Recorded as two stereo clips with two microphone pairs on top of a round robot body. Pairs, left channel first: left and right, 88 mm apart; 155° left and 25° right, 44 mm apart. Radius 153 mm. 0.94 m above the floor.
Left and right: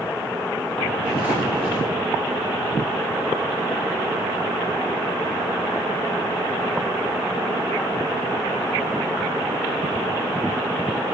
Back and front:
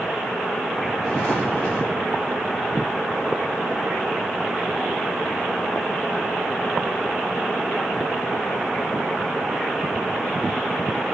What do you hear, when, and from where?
1.0 s footsteps: 70° left, 4.5 m